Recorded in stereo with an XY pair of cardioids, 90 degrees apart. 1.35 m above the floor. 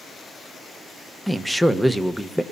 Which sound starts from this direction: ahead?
A man speaking, at 1.3 s.